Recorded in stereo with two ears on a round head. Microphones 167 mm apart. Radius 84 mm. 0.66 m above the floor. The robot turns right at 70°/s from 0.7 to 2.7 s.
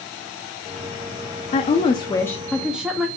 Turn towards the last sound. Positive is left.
turn(degrees=-175)